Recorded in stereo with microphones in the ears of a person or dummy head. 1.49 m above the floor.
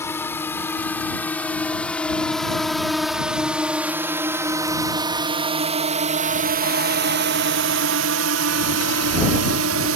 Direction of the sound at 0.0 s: 15° left (ahead or behind).